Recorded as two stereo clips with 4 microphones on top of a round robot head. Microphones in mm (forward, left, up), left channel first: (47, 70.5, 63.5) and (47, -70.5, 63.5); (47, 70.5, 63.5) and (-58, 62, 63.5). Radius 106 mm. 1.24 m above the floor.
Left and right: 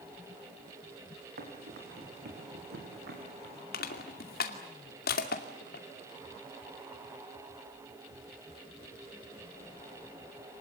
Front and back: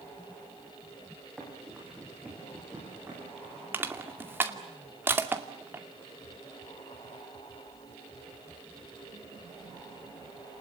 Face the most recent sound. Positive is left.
turn(degrees=115)